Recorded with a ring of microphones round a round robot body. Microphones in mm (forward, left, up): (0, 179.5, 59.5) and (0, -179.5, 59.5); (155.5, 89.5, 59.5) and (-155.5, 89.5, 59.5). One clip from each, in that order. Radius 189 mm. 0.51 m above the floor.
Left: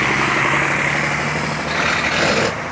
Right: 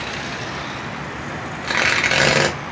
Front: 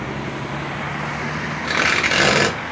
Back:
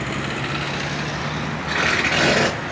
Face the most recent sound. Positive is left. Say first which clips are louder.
# right 3 dB, front 2 dB
turn(degrees=-35)